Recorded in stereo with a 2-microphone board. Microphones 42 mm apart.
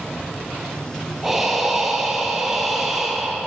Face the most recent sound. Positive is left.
turn(degrees=-10)  # may be behind; listen again after turning